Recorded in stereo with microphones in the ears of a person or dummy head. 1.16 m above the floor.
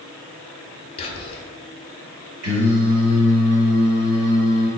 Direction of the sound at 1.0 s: 35° left (ahead or behind).